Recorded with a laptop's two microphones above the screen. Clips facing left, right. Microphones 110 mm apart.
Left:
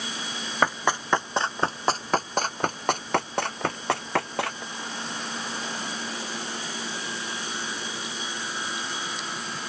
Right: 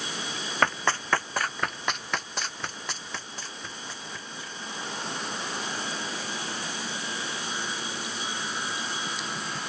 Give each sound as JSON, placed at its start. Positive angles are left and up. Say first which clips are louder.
{"t": 0.6, "sound": "running footsteps", "louder": "left 2 dB", "side_deg": 10}